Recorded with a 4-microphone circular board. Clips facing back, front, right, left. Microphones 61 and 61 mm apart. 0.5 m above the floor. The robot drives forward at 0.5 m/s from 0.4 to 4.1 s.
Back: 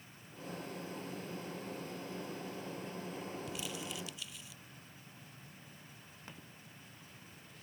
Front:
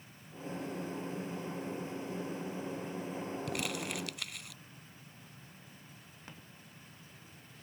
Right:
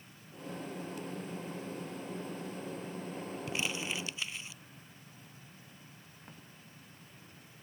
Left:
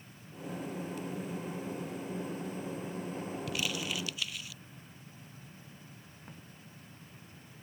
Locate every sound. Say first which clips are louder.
3.5 s crumpling: front 6 dB, right 1 dB; 25° right